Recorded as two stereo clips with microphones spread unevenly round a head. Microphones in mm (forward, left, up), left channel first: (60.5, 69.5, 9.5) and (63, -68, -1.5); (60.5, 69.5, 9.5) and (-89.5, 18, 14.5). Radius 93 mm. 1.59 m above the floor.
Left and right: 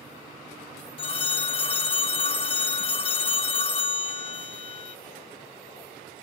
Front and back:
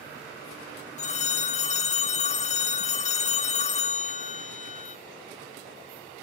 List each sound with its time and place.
1.0 s a phone ringing: 55° left, 1.1 m